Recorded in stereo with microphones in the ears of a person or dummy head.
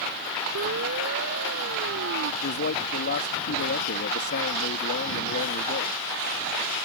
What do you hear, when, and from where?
0.6 s a siren: 70° right (ahead or behind); by 2.3 s 75° right (ahead or behind)
2.4 s a man speaking: 50° left (ahead or behind)